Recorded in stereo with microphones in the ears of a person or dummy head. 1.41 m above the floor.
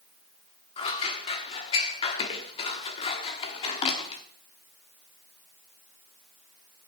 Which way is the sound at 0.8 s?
35° left (ahead or behind).